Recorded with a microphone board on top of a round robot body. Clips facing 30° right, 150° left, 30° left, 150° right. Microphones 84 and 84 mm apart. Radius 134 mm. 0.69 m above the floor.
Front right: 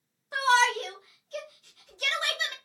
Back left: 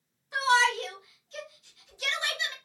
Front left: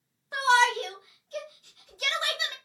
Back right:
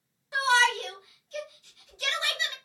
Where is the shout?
5° left, 1.6 m.